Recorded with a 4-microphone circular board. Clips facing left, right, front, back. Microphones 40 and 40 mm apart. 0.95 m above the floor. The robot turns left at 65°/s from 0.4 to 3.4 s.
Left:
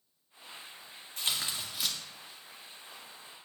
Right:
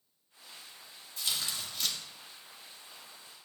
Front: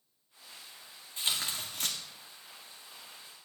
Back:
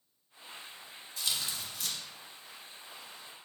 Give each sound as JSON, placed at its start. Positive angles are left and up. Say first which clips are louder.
{"t": 1.2, "sound": "tearing paper", "louder": "left 1 dB, front 2 dB", "azimuth_deg": 55, "distance_m": 1.9}